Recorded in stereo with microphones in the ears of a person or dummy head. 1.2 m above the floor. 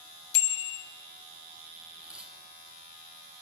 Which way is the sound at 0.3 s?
75° left (ahead or behind).